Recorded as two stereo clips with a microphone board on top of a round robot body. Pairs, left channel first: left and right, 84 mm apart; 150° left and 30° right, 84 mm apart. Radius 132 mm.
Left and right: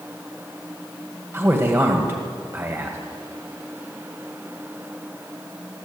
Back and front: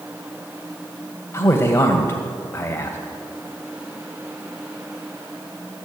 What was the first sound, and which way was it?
A man speaking, 150° right.